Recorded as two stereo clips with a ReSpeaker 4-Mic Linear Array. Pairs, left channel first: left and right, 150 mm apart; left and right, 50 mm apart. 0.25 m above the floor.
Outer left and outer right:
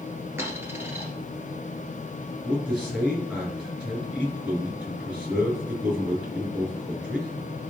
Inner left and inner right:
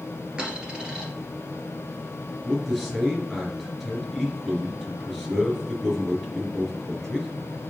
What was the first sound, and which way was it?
A dropped coin, 15° right (ahead or behind).